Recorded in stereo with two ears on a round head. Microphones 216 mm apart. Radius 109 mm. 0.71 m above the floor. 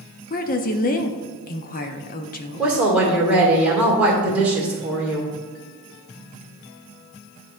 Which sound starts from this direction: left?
A woman speaking, at 0.3 s.